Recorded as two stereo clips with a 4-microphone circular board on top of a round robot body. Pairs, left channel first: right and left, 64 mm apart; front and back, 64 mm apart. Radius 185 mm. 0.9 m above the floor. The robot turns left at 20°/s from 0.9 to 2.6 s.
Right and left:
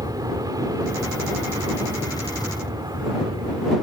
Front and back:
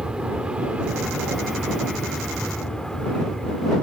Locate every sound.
0.0 s an aircraft: 105° left; by 3.8 s 90° left